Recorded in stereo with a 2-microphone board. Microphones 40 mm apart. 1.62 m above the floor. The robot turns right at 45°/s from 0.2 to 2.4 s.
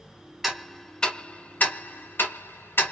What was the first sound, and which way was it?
Ticking, 5° right (ahead or behind).